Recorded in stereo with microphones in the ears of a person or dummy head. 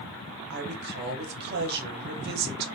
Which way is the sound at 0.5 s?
45° right (ahead or behind).